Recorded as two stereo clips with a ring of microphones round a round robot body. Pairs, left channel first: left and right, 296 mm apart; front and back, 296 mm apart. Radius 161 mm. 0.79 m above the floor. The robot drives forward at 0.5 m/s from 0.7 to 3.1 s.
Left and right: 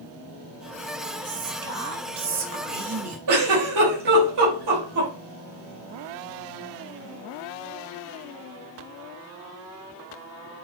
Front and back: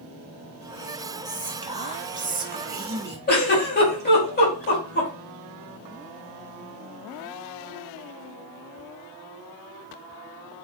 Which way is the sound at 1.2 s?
105° right.